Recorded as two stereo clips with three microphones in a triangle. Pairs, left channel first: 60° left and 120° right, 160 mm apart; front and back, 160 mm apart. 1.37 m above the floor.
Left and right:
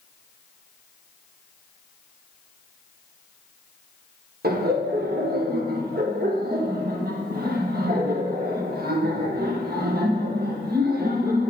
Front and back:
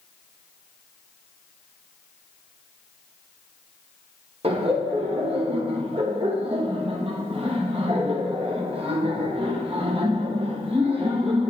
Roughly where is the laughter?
Behind right.